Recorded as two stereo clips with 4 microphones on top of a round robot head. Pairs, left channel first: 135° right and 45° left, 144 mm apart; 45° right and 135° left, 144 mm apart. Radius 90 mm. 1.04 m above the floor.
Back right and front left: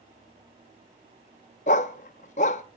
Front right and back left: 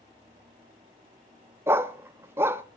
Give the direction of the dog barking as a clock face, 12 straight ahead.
5 o'clock.